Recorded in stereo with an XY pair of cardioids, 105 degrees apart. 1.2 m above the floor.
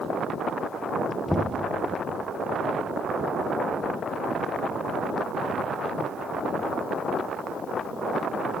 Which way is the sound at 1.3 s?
5° left.